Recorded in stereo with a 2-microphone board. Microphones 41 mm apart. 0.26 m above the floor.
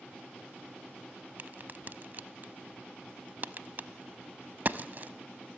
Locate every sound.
1.4 s a crack: 45° right (ahead or behind), 0.7 m